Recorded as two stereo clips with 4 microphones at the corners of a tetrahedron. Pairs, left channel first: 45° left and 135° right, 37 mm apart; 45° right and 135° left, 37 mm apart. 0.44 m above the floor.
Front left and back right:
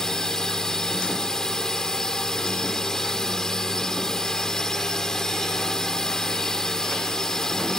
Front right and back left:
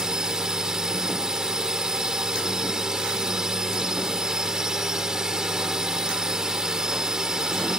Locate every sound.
0.0 s a drone: 95° left